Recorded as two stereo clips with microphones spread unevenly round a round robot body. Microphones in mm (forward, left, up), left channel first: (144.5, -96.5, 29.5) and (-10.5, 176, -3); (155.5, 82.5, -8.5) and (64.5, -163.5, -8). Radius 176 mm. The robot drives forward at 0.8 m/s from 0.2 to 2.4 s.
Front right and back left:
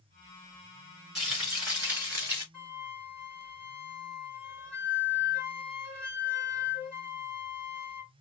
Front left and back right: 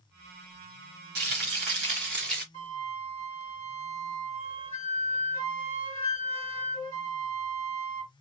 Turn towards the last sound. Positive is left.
turn(degrees=170)